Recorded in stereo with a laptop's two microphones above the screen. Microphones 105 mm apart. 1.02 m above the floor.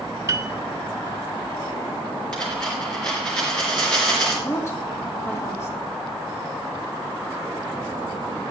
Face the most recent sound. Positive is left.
turn(degrees=25)  # may be behind; listen again after turning